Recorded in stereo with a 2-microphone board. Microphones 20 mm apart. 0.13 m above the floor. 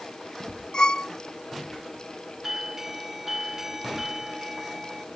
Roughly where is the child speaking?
No child speaking in this recording.